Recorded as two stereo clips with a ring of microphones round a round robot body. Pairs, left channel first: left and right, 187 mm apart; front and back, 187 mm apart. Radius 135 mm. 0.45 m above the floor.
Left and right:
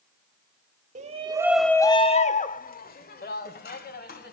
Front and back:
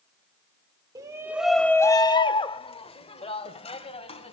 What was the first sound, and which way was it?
A shout, 115° right.